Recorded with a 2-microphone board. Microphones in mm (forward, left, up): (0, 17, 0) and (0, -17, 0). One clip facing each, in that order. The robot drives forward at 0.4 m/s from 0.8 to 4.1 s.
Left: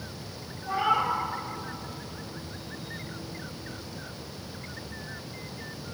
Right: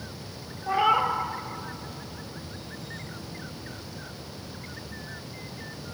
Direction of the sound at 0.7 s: 30° right (ahead or behind).